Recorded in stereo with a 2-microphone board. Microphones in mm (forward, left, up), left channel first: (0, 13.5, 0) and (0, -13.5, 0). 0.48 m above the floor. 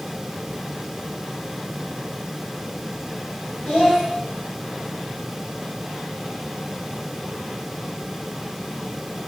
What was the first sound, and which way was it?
A child speaking, 60° left (ahead or behind).